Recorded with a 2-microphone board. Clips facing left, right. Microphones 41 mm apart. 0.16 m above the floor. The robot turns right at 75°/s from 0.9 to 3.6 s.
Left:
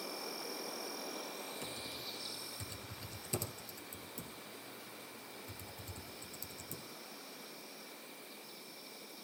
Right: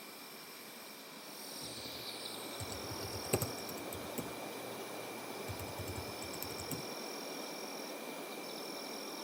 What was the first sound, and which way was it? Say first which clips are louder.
An insect: left 7 dB; 100° left.